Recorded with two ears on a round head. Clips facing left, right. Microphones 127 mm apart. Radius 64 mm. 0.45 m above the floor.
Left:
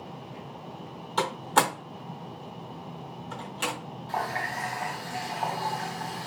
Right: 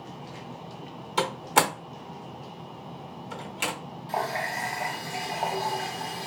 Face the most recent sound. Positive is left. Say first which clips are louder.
# right 2 dB
turn(degrees=-25)  # may be behind; listen again after turning